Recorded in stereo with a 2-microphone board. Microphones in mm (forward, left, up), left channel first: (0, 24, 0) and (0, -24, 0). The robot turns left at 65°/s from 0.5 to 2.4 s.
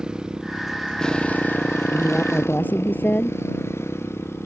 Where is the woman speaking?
170° left; by 3.4 s 135° left.